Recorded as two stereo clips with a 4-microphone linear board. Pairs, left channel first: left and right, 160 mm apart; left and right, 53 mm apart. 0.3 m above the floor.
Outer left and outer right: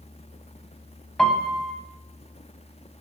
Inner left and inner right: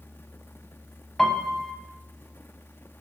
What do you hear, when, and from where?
1.2 s a piano: 5° left (ahead or behind), 0.7 m